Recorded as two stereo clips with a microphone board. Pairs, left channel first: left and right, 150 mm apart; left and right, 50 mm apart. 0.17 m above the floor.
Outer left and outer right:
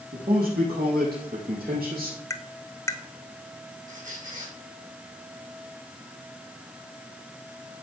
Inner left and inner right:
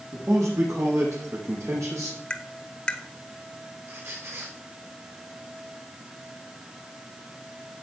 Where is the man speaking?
80° right, 7 m.